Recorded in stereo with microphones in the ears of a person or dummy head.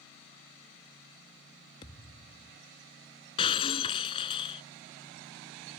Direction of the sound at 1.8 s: 20° left (ahead or behind).